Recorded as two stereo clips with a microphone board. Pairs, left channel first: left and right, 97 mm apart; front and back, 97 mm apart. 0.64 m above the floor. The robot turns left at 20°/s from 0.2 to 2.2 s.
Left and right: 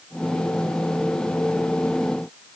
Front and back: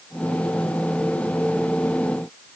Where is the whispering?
No whispering in this recording.